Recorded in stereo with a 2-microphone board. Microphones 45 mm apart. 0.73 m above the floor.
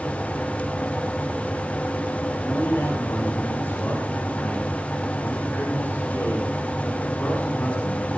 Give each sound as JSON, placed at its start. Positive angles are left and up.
{"t": 2.4, "sound": "a man speaking", "side_deg": 55, "distance_m": 9.5}